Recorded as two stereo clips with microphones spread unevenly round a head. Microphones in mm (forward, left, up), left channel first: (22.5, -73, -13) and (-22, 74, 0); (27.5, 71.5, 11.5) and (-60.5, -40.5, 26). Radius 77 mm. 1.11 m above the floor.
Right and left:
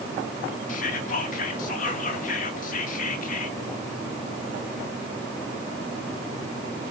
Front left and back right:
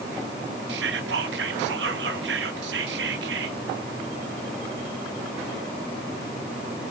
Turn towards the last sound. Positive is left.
turn(degrees=-115)